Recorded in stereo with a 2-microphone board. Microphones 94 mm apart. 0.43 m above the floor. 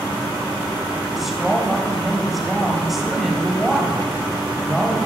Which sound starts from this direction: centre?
A woman speaking, at 1.1 s.